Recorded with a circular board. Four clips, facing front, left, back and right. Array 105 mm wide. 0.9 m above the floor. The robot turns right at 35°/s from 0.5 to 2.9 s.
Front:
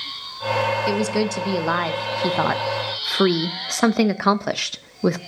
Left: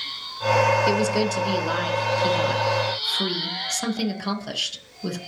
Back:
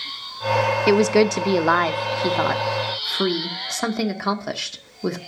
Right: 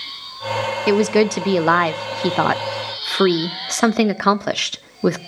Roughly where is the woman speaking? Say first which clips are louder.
Right 6 dB, back 5 dB; behind right.